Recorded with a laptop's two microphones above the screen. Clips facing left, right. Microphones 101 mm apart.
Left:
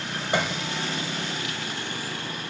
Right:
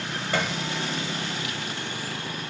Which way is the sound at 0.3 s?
20° left (ahead or behind).